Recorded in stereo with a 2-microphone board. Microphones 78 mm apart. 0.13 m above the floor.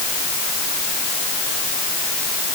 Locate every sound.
Only background noise.